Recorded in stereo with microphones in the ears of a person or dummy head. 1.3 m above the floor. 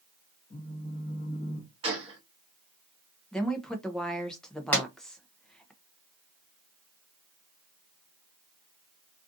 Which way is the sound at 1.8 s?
30° right (ahead or behind).